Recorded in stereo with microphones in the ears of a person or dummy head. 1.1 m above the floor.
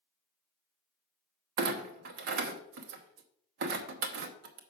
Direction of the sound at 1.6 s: 60° right (ahead or behind).